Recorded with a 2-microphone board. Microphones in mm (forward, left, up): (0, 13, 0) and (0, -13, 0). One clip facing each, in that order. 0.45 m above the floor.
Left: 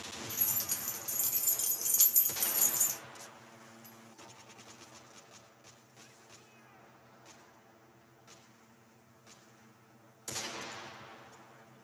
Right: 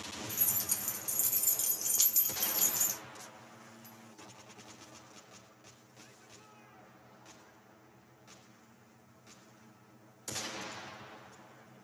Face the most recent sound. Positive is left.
turn(degrees=-25)  # may be behind; listen again after turning